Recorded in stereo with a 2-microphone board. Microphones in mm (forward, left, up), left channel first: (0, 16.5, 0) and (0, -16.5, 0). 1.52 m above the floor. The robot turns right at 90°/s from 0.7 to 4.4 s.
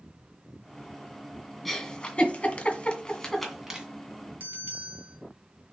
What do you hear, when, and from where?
1.6 s a giggle: 5° left (ahead or behind), 1.9 m; by 3.9 s 20° right (ahead or behind), 1.9 m
4.4 s a bell: 80° right, 2.5 m